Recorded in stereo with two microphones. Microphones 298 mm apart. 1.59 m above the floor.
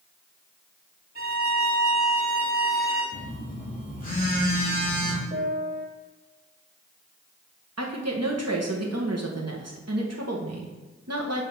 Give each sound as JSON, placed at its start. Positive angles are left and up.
{"t": 1.1, "sound": "a violin", "side_deg": 30, "distance_m": 2.0}
{"t": 3.1, "sound": "a phone buzzing", "side_deg": 30, "distance_m": 2.5}
{"t": 5.3, "sound": "a piano", "side_deg": -40, "distance_m": 1.3}
{"t": 7.8, "sound": "a woman speaking", "side_deg": -65, "distance_m": 1.0}